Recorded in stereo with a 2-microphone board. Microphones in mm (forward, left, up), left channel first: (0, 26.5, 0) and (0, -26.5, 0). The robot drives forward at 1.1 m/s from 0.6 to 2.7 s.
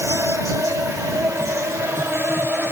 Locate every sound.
0.0 s an insect: 75° right (ahead or behind), 2 m; by 2.7 s 45° right (ahead or behind), 3 m